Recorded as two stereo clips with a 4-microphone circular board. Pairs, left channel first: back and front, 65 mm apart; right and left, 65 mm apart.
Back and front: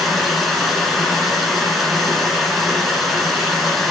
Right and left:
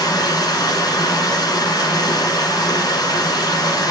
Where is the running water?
90° right, 2 m.